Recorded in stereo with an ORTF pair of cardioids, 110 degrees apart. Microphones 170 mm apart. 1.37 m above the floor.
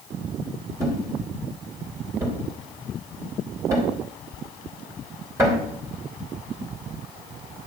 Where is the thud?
20° right, 3 m.